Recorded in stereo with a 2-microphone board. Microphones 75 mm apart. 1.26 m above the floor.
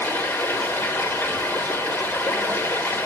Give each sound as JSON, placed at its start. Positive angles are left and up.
{"t": 0.0, "sound": "running water", "side_deg": 30, "distance_m": 1.9}